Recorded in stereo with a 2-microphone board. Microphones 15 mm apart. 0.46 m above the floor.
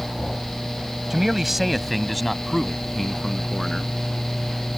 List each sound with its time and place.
1.1 s a man speaking: 25° right (ahead or behind); by 3.9 s 25° left (ahead or behind)